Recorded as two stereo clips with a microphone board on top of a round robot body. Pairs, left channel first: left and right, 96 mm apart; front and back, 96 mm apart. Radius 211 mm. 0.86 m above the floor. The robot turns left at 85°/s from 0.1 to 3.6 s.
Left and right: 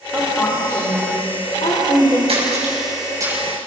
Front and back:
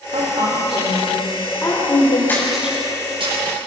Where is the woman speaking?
165° right, 4.5 m; by 2.2 s 20° left, 4.5 m.